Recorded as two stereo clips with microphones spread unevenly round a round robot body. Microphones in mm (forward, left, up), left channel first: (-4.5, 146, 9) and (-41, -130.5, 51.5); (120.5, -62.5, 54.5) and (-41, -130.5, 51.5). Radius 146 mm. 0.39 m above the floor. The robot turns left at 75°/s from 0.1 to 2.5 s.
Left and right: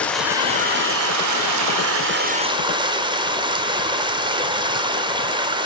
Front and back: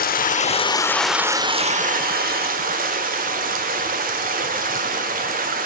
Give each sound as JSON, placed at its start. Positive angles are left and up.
{"t": 0.0, "sound": "running water", "azimuth_deg": 5, "distance_m": 0.8}